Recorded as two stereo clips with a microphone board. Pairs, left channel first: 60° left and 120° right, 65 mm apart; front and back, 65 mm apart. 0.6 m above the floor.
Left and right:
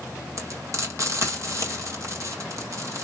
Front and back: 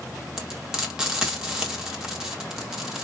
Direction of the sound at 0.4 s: 100° right.